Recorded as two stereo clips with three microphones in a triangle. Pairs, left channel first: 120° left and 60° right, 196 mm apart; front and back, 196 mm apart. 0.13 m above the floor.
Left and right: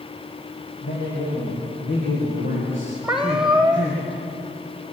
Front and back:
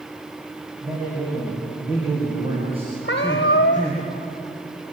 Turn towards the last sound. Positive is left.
turn(degrees=25)